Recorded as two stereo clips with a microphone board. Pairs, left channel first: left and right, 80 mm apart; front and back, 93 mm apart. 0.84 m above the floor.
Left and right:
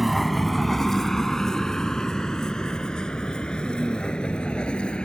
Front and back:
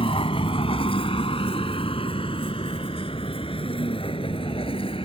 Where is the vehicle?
Straight ahead; by 5.0 s 15° left.